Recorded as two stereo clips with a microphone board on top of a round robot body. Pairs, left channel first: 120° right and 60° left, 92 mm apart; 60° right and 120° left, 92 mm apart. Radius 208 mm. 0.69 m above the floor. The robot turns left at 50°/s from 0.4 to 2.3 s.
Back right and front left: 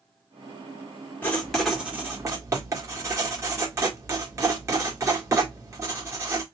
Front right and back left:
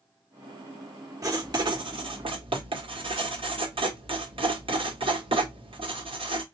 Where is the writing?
170° left, 1.9 m; by 6.4 s 115° left, 1.9 m.